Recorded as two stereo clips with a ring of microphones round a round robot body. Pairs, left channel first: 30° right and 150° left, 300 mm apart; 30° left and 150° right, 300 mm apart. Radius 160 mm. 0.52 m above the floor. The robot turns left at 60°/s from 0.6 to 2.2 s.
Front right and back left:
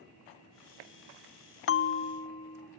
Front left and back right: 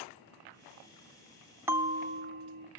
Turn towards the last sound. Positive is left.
turn(degrees=-100)